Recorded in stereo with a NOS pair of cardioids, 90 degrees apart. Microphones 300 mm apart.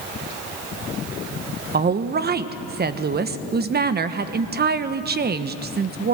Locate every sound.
1.7 s a woman speaking: 35° right, 1.2 m